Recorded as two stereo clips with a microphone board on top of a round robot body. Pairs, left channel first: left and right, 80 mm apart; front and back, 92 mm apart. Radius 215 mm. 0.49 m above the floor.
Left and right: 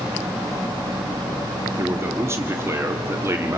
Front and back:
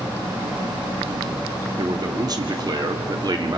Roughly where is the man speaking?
Behind right.